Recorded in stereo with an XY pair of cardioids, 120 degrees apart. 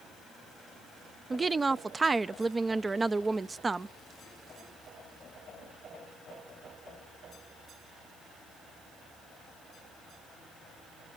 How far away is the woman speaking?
About 0.6 m.